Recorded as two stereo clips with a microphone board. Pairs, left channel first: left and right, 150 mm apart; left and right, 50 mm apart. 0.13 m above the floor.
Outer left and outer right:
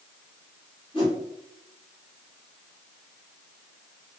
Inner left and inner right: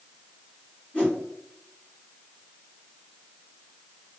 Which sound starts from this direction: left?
A whoosh, at 0.9 s.